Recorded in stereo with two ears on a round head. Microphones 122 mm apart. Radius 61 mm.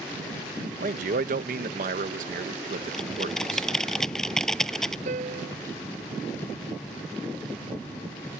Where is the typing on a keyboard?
5° left (ahead or behind).